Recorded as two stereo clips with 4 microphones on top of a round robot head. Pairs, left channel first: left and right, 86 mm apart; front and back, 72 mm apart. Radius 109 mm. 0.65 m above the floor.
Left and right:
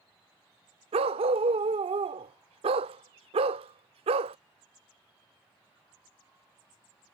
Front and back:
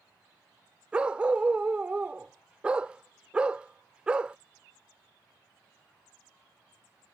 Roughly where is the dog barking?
Right.